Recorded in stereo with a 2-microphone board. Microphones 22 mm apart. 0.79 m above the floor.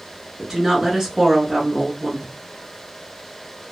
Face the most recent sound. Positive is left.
turn(degrees=-15)  # may be behind; listen again after turning